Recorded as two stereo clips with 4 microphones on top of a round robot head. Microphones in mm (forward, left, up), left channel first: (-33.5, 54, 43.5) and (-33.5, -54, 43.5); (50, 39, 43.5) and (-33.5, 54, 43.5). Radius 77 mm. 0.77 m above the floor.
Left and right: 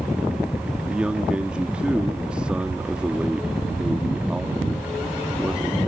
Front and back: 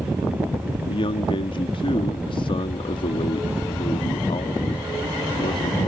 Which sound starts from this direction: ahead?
A man speaking, at 0.9 s.